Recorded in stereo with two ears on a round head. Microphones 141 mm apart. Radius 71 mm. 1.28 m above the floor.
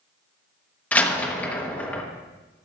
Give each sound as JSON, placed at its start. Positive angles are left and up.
{"t": 0.9, "sound": "a door slam", "side_deg": 10, "distance_m": 1.0}